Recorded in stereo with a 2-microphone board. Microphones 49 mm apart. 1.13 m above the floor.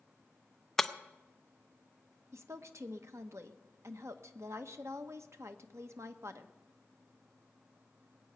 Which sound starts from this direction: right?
A woman speaking, at 2.3 s.